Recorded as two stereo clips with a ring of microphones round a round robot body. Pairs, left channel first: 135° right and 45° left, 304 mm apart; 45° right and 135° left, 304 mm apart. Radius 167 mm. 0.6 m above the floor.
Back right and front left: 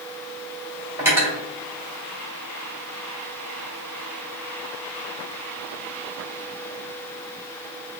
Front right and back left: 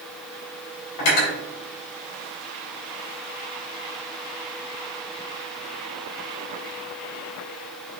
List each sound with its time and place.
1.0 s cutlery clinking: 40° right, 1.8 m